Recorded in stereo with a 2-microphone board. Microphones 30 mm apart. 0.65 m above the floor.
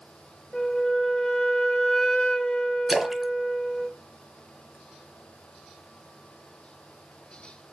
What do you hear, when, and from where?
0.5 s a flute: 30° left (ahead or behind), 2.5 m
2.9 s a splash: 5° right (ahead or behind), 1.1 m